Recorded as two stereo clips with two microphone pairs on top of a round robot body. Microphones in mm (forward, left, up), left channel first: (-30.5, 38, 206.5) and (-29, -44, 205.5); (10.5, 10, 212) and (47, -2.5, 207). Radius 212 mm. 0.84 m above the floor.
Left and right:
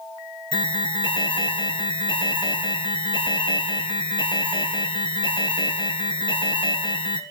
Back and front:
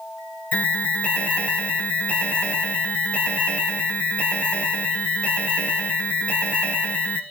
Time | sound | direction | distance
0.5 | an alarm | 105° left | 3.5 m